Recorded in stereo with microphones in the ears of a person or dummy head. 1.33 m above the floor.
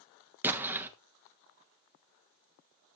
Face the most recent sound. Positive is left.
turn(degrees=-15)  # may be behind; listen again after turning